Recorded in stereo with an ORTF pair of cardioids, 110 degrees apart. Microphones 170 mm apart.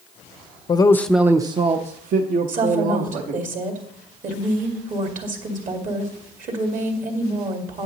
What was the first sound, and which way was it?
A man speaking, 30° left.